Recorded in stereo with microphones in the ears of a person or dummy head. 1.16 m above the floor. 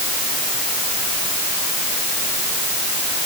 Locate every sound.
Only background noise.